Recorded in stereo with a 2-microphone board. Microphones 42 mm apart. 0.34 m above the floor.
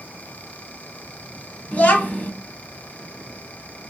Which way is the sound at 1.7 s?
40° left (ahead or behind).